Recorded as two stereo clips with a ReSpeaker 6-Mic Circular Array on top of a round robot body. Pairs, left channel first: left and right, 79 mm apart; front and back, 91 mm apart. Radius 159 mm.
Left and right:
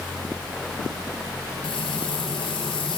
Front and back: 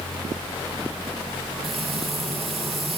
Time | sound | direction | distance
1.6 | frying | 90° left | 6.5 m